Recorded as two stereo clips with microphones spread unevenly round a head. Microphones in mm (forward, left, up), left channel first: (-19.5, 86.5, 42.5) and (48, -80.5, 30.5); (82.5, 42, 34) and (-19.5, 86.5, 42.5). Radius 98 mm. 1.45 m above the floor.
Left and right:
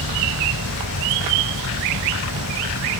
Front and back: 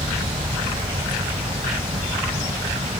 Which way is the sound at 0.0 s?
115° left.